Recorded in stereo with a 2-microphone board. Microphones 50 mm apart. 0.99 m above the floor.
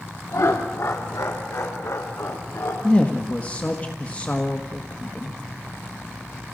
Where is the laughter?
75° left (ahead or behind), 2.5 m; by 2.7 s 70° left (ahead or behind), 3.5 m.